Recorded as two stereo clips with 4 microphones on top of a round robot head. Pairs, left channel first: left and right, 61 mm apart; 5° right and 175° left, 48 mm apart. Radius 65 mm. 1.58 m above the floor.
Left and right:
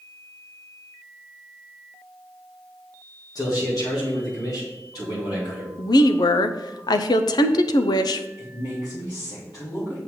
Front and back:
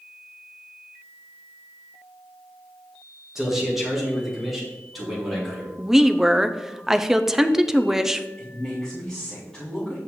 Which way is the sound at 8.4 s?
70° left.